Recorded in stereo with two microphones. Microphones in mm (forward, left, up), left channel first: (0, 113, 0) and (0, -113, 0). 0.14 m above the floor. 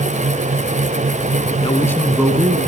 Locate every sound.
1.6 s a man speaking: 25° left (ahead or behind), 1.1 m; by 2.7 s 30° right (ahead or behind), 1.3 m